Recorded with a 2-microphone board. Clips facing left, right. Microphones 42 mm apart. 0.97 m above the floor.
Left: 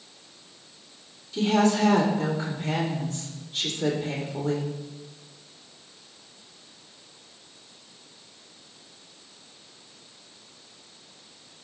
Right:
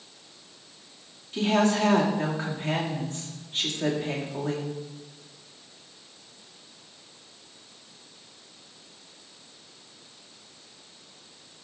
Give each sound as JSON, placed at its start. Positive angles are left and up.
{"t": 1.3, "sound": "a woman speaking", "side_deg": -40, "distance_m": 1.8}